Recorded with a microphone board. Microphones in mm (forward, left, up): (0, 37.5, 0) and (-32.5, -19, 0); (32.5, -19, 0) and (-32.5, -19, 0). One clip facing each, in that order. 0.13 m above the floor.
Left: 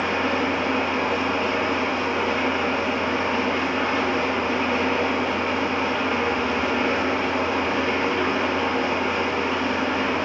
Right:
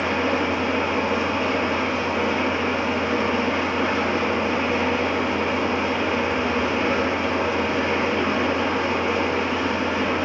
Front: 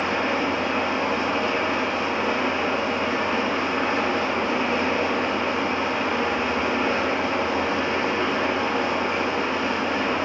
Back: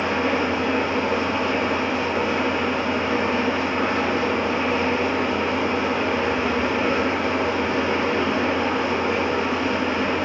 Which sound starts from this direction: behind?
An engine running, at 0.0 s.